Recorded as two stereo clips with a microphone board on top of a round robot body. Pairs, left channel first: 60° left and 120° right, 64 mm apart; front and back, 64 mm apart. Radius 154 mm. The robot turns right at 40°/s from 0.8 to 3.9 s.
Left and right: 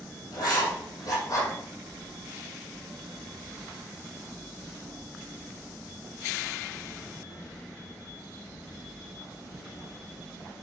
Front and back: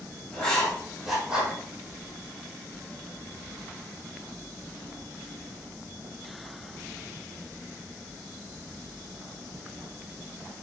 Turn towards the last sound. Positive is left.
turn(degrees=-155)